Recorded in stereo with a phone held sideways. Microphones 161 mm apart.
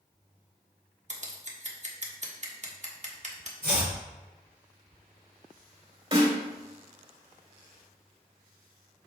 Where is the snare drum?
35° right (ahead or behind), 3 m.